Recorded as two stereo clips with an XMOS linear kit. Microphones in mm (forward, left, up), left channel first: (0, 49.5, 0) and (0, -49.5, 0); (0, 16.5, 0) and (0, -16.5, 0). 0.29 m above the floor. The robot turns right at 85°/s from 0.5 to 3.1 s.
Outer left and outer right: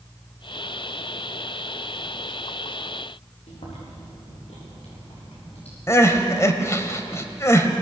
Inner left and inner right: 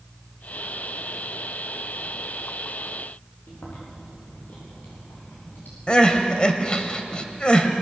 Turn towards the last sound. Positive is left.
turn(degrees=30)  # may be behind; listen again after turning